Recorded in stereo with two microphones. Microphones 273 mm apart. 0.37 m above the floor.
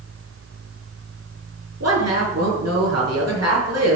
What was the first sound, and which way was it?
A woman speaking, 65° right (ahead or behind).